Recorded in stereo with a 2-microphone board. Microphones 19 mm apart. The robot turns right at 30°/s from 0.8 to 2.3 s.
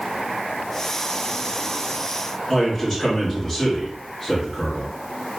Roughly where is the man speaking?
Left.